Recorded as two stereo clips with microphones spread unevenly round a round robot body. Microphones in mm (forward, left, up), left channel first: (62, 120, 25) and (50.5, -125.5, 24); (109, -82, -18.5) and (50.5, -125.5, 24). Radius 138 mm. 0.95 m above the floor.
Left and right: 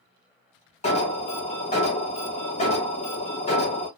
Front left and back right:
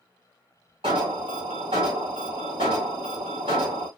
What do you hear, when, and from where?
0.8 s an alarm: 150° left, 0.8 m